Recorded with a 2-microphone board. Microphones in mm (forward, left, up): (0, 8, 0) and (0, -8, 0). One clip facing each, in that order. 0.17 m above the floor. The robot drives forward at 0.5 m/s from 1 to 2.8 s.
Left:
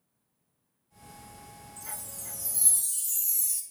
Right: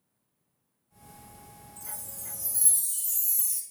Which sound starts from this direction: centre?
A chime, at 1.8 s.